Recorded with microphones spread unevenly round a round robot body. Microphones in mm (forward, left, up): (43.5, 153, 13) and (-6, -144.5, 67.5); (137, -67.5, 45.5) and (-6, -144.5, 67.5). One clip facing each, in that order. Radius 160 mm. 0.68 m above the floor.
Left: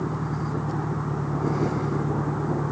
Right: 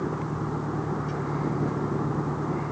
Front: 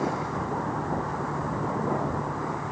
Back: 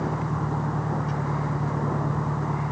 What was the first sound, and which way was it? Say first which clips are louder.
An engine running: even, even; 155° left.